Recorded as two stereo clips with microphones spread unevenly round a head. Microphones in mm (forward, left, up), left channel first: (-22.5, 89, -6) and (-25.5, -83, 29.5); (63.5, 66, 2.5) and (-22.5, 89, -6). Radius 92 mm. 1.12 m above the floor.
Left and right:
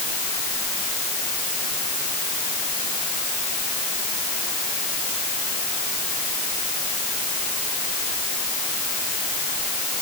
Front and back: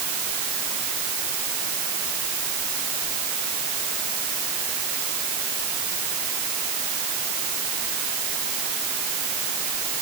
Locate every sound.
Only background noise.